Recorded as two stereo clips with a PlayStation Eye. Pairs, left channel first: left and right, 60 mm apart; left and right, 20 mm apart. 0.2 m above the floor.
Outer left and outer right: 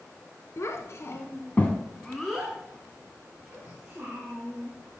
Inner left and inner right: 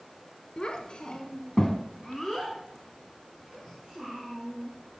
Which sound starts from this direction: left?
A child speaking, at 0.6 s.